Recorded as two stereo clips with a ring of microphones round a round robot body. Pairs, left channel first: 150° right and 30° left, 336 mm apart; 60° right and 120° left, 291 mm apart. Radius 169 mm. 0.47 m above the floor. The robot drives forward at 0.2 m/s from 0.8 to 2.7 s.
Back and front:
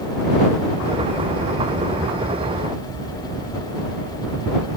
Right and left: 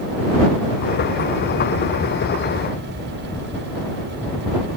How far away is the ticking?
No ticking in this recording.